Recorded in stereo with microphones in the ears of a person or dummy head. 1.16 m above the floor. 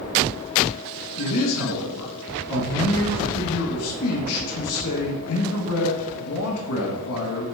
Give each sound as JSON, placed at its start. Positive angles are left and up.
{"t": 1.2, "sound": "a man speaking", "side_deg": 75, "distance_m": 1.6}